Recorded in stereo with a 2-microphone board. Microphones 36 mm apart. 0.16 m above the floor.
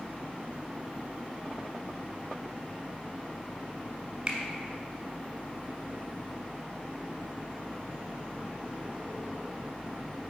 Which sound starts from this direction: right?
A finger snap, at 4.3 s.